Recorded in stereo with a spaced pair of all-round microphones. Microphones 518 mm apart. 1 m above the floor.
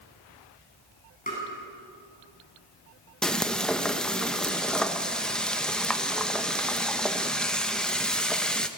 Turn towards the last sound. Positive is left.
turn(degrees=0)  # may be behind; listen again after turning